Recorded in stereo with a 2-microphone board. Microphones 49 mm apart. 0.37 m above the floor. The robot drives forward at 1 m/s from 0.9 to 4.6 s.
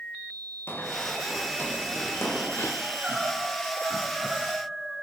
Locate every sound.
0.7 s running footsteps: 50° left (ahead or behind), 4.5 m
2.8 s crying: 15° right (ahead or behind), 4 m; by 4.9 s 10° right (ahead or behind), 5.5 m